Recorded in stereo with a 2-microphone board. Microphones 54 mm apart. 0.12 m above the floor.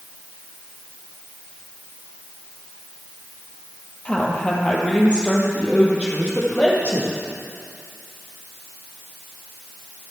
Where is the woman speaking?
20° left (ahead or behind), 3 m; by 7.2 s 25° left (ahead or behind), 4.5 m.